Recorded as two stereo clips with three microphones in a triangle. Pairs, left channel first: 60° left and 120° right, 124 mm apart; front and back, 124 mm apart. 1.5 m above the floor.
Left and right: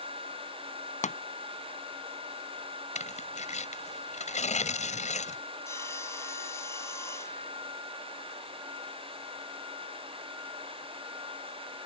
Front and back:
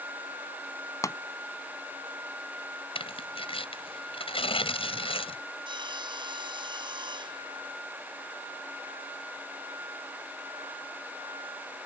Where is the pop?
65° left.